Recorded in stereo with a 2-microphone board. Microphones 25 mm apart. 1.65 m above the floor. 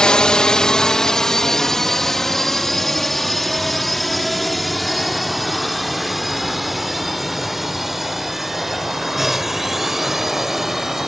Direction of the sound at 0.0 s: 30° left (ahead or behind).